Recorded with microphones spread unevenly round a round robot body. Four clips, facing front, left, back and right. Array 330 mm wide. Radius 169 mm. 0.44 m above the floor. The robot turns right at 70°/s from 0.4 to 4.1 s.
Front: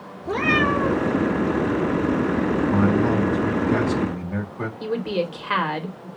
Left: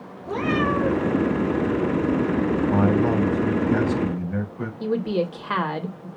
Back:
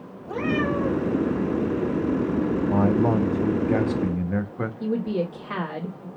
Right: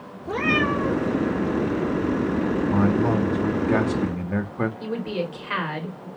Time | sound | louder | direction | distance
0.2 | a cat meowing | even, front 3 dB | 10° right | 1.8 m
2.7 | a man speaking | even, even | 135° left | 1.1 m
4.8 | a woman speaking | left 4 dB, front 1 dB | 65° left | 1.5 m